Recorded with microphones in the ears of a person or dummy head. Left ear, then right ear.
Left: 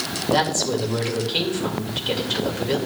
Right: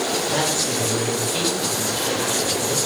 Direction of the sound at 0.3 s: 25° left (ahead or behind).